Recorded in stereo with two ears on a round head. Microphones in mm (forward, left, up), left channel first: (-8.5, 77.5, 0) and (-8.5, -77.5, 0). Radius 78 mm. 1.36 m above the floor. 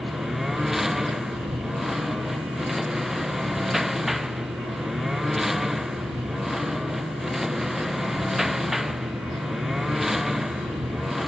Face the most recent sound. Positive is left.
turn(degrees=0)  # may be behind; listen again after turning